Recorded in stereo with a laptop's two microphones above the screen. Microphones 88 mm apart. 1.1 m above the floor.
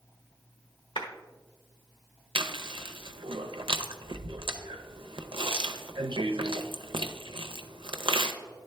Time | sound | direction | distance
1.0 | a clap | 80° left | 1.2 m
2.4 | chewing | 85° right | 0.5 m